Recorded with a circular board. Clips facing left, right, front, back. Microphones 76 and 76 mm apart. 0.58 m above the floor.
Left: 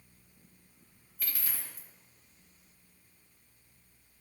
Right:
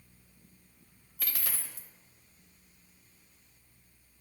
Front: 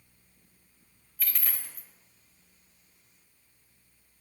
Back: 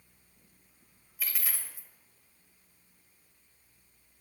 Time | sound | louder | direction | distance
1.2 | a dropped coin | right 2 dB, even | 95° right | 0.6 m